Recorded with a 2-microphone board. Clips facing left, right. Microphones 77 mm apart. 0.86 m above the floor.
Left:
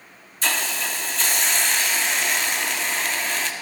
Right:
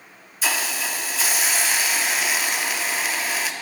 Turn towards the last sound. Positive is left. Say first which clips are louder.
# even
turn(degrees=-5)  # may be behind; listen again after turning